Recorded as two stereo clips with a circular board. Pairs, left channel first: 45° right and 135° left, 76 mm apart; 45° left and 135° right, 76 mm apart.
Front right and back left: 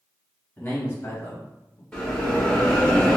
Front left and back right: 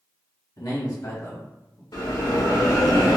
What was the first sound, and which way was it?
A man speaking, 15° left.